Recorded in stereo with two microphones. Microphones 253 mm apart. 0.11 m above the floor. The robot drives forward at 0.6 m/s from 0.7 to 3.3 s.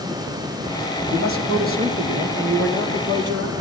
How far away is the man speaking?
About 3 m.